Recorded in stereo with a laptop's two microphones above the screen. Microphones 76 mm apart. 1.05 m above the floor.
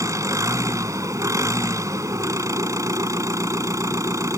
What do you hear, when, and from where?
0.0 s an engine running: 40° right (ahead or behind)